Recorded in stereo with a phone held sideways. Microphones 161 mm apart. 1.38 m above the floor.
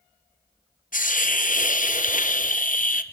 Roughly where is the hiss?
Left.